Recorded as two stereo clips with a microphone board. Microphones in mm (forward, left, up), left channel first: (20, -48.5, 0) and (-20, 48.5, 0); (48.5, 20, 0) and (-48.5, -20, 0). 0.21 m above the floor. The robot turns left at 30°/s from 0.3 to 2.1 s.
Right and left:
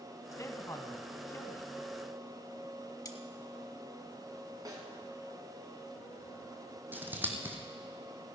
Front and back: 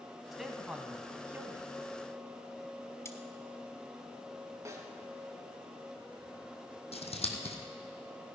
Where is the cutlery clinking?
30° right, 1.0 m.